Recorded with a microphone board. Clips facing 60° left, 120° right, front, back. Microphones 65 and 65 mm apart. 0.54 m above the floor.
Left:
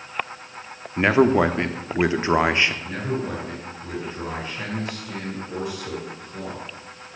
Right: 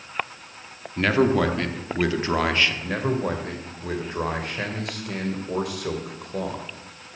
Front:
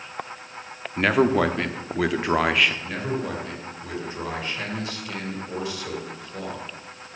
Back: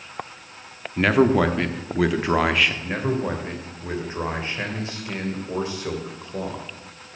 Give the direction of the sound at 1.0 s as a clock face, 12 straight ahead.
9 o'clock.